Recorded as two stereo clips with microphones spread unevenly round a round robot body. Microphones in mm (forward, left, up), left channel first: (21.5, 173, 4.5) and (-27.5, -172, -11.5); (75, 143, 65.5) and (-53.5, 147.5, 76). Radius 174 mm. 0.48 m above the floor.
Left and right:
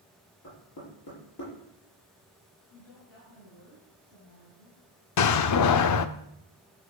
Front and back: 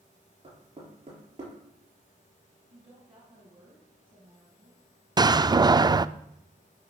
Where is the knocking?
135° left, 8 m.